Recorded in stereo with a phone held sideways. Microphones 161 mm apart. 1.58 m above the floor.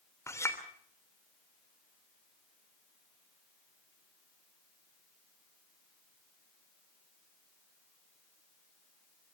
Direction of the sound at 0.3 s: 15° left (ahead or behind).